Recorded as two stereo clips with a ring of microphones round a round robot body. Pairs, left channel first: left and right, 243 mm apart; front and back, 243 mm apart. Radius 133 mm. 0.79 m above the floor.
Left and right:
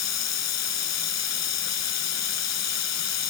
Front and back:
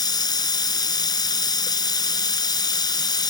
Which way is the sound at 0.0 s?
75° left.